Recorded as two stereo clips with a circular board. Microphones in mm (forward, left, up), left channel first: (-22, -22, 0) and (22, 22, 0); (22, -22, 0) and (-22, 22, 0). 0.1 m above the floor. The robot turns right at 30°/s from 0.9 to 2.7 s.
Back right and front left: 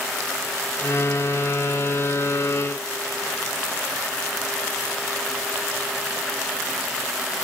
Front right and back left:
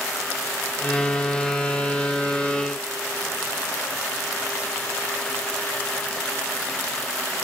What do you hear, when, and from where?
Only background noise.